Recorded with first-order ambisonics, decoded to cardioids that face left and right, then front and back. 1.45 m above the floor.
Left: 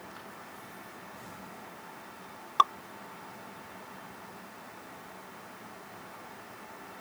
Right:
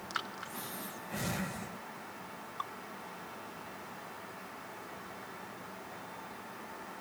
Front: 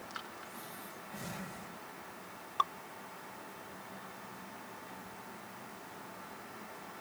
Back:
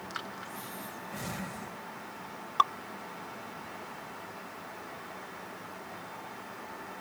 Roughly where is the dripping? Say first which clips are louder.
Left 18 dB, back 7 dB; behind left.